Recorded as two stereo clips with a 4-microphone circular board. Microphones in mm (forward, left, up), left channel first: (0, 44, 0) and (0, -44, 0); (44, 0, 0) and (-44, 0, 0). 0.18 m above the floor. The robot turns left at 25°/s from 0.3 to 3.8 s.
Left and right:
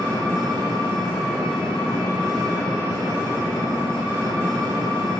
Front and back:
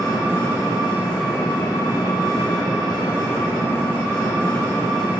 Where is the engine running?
35° left, 0.9 m; by 5.2 s 50° right, 0.9 m.